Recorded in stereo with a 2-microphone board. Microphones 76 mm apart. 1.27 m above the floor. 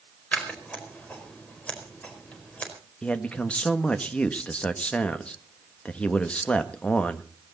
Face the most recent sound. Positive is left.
turn(degrees=15)  # may be behind; listen again after turning